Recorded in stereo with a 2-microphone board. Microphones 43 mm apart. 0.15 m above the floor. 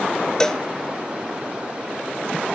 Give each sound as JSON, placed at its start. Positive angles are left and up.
{"t": 0.4, "sound": "a cowbell", "side_deg": 15, "distance_m": 0.6}